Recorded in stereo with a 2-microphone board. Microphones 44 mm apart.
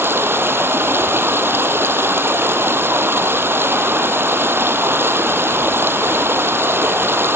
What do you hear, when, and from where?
0.0 s running water: 60° right (ahead or behind), 1.9 m